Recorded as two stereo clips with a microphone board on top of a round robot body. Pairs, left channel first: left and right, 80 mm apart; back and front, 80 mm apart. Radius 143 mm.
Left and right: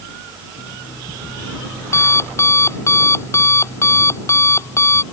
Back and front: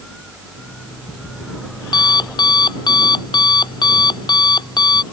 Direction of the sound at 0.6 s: 150° left.